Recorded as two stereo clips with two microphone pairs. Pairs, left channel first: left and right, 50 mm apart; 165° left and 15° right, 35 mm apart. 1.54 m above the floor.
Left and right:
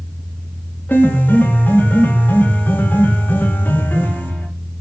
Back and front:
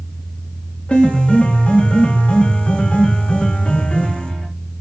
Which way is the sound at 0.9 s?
130° left.